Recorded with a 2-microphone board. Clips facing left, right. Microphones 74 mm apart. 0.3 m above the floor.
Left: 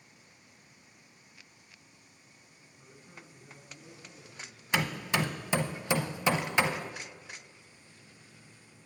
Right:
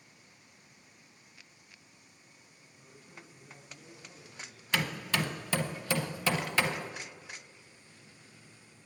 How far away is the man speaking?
About 4 m.